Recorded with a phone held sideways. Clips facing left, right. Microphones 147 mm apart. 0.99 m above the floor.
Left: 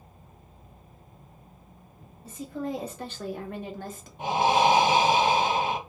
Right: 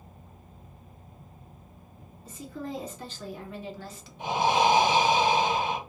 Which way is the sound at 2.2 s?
65° left (ahead or behind).